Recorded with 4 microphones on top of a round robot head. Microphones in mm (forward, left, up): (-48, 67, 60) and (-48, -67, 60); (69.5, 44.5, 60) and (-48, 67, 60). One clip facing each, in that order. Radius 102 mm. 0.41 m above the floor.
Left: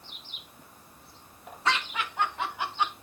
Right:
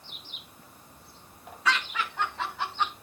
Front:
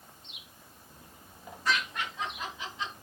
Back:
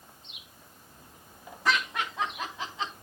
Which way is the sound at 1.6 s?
155° left.